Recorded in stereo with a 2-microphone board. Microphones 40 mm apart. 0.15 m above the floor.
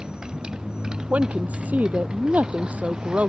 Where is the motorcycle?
20° right (ahead or behind).